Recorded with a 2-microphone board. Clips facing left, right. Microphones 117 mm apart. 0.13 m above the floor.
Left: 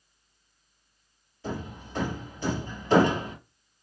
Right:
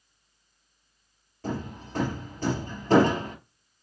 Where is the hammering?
50° right (ahead or behind), 2 m.